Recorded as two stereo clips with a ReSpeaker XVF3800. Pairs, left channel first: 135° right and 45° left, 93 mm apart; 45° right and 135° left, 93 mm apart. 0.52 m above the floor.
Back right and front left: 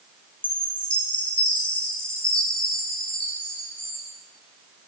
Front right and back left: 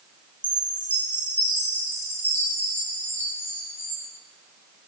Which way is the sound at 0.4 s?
110° right.